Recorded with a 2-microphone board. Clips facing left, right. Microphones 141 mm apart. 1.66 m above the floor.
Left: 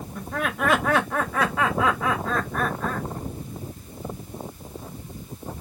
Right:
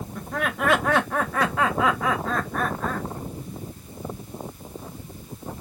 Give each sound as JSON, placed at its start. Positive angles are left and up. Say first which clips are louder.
{"t": 0.1, "sound": "laughter", "louder": "even", "side_deg": 5, "distance_m": 1.1}